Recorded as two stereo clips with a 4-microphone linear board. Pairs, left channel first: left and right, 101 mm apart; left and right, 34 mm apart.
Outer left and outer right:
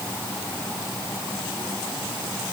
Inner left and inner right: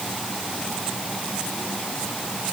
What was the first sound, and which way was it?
Only background noise.